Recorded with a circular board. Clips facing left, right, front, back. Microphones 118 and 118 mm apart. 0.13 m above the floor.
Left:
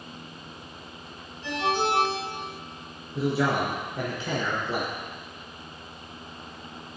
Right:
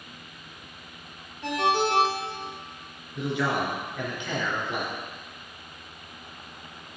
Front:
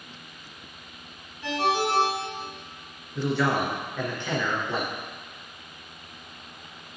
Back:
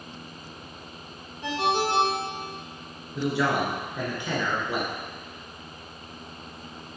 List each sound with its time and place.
1.4 s a ringtone: 115° right, 2.5 m
3.1 s a man speaking: 110° left, 1.8 m